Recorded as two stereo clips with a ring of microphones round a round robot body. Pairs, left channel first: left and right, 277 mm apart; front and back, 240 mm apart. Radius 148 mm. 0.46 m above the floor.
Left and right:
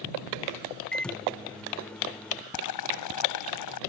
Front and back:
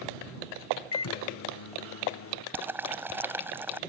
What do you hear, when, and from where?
0.9 s a microwave: 5° left
2.5 s boiling: 100° left